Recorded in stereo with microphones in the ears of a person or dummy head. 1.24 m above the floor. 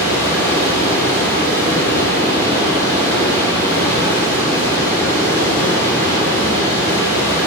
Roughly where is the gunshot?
I don't hear a gunshot.